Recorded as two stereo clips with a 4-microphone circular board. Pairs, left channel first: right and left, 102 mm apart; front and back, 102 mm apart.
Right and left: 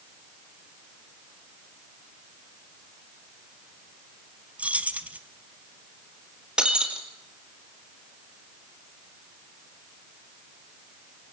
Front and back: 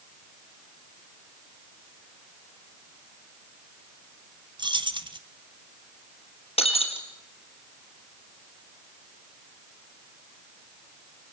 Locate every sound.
4.6 s keys jangling: 165° left, 1.1 m
6.6 s breaking glass: 10° left, 2.5 m